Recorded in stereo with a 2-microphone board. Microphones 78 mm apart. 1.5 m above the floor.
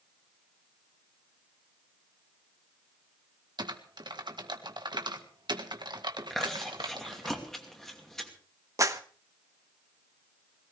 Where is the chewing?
5° left (ahead or behind), 2.5 m.